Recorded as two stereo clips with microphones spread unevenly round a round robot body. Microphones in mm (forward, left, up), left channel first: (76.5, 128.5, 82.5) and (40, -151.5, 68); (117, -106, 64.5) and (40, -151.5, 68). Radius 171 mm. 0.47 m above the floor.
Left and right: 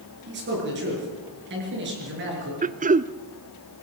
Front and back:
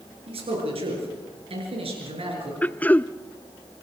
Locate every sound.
0.3 s a man speaking: 150° right, 6.5 m
2.6 s throat clearing: 40° right, 0.7 m